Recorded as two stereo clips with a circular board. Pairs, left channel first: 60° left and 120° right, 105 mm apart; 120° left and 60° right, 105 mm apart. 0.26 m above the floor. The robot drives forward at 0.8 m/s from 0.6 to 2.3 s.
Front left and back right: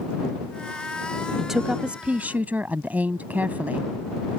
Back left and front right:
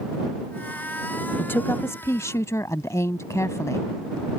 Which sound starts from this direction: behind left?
A woman speaking, at 1.4 s.